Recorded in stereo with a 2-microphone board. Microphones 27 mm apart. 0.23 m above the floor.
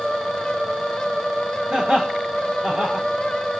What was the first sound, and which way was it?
Laughter, 40° right (ahead or behind).